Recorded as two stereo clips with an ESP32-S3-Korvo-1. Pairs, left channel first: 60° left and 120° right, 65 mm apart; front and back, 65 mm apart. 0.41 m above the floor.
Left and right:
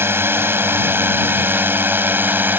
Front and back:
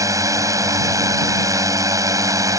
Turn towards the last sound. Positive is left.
turn(degrees=-175)